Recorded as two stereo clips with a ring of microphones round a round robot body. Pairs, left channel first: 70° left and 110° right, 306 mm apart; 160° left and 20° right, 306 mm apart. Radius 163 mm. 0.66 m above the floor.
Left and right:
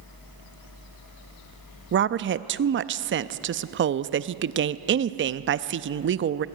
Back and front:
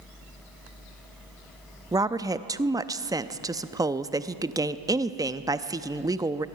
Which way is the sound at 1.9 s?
95° right.